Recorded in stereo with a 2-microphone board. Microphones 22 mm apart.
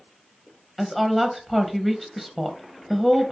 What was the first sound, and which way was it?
A woman speaking, centre (ahead or behind).